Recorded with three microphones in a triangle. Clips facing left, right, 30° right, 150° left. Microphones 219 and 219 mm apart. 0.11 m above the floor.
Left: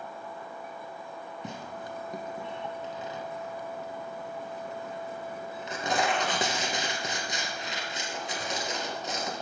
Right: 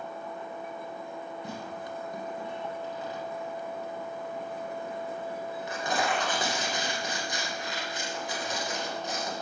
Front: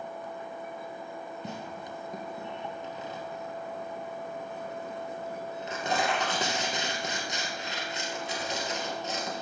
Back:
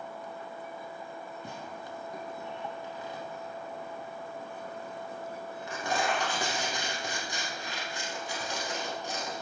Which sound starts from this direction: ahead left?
Tearing paper, at 1.4 s.